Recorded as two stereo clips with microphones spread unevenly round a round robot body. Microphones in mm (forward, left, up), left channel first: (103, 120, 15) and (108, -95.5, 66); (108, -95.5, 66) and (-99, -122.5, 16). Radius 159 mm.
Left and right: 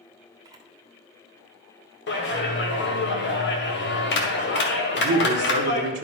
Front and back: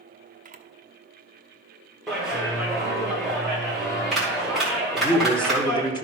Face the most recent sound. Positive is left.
turn(degrees=-70)